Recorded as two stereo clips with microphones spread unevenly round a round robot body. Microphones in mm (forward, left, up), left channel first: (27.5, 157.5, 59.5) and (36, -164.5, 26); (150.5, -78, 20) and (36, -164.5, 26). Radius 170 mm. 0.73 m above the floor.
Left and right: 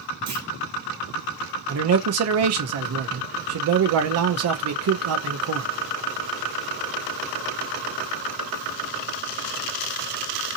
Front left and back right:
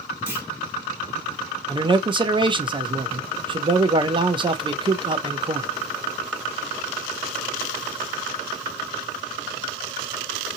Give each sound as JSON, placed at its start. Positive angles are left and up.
{"t": 0.3, "sound": "a clunk", "azimuth_deg": -65, "distance_m": 1.9}
{"t": 1.7, "sound": "a man speaking", "azimuth_deg": -90, "distance_m": 0.7}